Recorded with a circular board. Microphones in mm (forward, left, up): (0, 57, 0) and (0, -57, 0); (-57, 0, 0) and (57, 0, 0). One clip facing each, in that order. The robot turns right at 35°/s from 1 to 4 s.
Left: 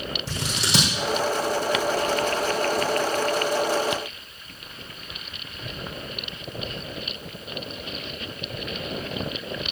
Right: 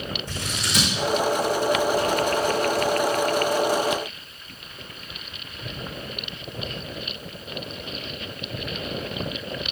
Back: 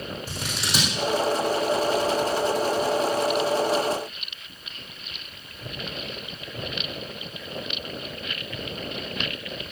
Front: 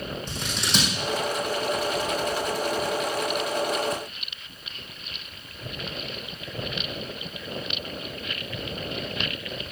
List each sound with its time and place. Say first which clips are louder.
0.3 s scissors: left 3 dB, front 2 dB; 95° left, 3.5 m